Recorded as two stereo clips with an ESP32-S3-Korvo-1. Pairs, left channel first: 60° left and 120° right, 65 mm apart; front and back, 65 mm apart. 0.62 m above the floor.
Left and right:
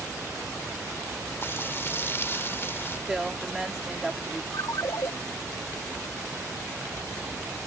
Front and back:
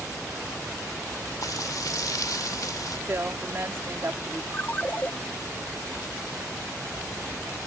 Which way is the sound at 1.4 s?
10° left.